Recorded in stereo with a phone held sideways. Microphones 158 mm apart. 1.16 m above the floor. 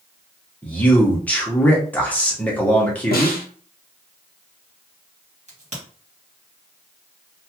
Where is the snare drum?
70° left (ahead or behind), 0.9 m.